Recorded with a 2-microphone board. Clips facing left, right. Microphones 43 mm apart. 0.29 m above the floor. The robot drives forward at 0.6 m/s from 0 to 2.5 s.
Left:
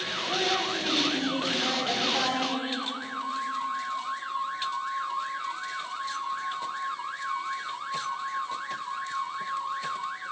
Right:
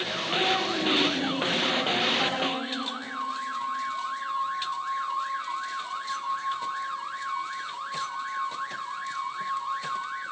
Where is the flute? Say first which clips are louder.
Even; 45° left (ahead or behind), 2.5 m.